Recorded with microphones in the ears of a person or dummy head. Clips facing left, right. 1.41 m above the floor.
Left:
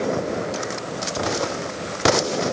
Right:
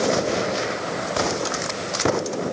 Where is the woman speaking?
No woman speaking in this recording.